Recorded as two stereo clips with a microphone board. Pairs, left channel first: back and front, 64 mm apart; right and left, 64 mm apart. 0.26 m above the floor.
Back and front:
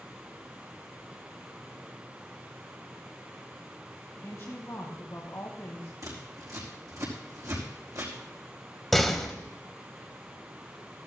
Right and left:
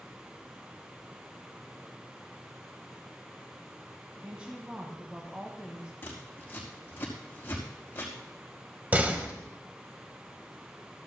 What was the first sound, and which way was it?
A woman speaking, 155° left.